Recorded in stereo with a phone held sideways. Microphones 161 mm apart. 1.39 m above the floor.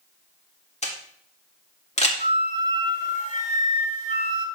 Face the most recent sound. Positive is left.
turn(degrees=50)  # may be behind; listen again after turning